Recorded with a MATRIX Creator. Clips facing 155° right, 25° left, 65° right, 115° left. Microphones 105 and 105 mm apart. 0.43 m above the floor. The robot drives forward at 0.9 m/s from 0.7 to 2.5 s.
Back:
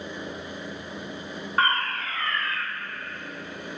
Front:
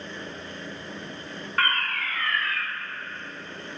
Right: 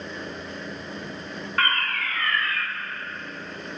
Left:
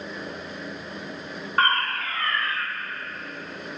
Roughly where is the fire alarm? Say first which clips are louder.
Back 2 dB, left 3 dB; behind left.